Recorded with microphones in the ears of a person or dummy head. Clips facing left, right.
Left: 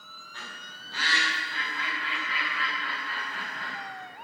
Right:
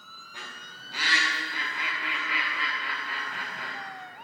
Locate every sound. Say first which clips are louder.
0.3 s a bird: even; 15° right (ahead or behind), 1.9 m